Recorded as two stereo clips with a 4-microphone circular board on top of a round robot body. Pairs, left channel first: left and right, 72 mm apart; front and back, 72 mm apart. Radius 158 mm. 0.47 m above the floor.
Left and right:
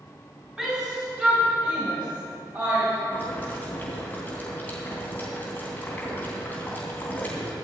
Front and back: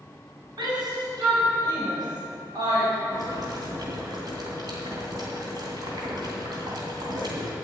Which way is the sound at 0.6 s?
170° right.